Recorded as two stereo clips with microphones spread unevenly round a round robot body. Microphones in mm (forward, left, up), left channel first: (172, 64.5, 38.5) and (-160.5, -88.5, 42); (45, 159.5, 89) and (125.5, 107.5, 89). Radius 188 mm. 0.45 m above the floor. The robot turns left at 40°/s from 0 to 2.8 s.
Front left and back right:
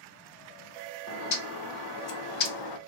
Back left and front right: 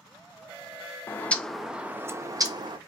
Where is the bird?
75° left, 0.6 m; by 2.8 s 10° left, 0.6 m.